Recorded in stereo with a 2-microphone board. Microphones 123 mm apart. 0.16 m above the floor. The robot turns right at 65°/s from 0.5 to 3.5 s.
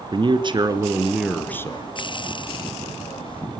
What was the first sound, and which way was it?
A man speaking, 50° right.